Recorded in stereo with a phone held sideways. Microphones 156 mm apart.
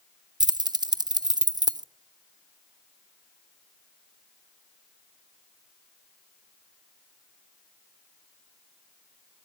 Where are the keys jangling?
25° right (ahead or behind), 0.7 m.